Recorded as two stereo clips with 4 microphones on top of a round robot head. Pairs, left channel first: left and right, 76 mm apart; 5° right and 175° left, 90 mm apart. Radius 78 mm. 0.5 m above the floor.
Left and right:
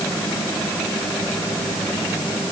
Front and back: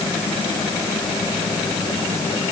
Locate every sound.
Only background noise.